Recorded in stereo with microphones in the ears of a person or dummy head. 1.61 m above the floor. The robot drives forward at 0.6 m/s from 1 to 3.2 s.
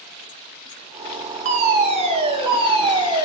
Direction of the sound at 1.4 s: 40° right (ahead or behind).